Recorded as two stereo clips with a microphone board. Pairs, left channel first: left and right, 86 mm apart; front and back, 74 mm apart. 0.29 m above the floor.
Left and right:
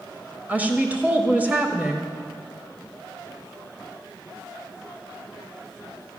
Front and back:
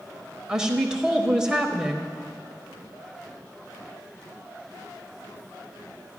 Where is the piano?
I don't hear a piano.